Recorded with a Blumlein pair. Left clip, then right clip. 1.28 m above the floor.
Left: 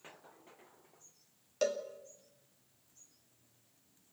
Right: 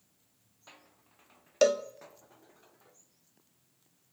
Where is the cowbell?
30° right, 1.1 m.